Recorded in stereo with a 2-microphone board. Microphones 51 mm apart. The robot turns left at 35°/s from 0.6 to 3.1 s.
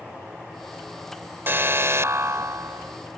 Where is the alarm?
50° right; by 3.0 s 105° right.